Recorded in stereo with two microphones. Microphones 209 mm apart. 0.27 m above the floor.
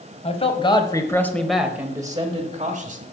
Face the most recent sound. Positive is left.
turn(degrees=-35)  # may be behind; listen again after turning